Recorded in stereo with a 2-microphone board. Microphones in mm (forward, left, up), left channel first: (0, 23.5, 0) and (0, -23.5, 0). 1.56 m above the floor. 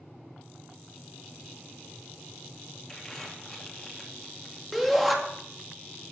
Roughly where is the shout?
Centre.